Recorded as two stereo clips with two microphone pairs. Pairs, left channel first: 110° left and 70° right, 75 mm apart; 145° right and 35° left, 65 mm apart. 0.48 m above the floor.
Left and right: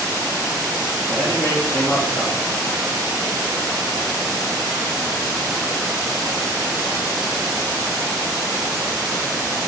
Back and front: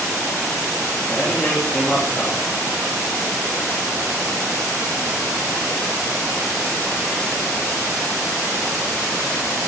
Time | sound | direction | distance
1.1 | a man speaking | 140° left | 3 m